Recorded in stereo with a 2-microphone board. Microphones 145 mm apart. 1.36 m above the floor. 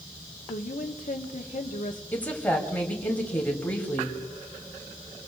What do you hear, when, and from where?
0.5 s a woman speaking: 70° left (ahead or behind), 1.3 m
2.1 s a woman speaking: 10° left (ahead or behind), 3 m